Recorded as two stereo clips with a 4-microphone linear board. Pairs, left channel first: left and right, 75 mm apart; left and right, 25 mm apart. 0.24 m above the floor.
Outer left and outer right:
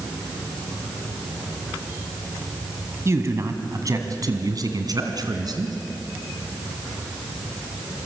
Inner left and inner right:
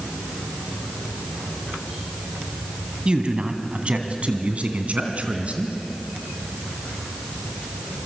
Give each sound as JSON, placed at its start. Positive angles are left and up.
{"t": 3.0, "sound": "a man speaking", "side_deg": -40, "distance_m": 2.0}